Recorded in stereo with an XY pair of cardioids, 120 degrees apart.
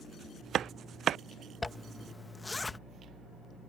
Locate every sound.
1.6 s a zipper: 20° left